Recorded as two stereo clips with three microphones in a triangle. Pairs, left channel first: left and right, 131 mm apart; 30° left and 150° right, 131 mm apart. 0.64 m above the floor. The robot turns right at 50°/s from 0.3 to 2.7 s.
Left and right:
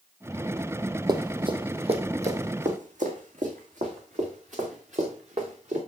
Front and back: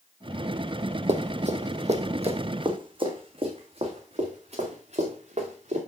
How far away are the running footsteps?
About 1.2 m.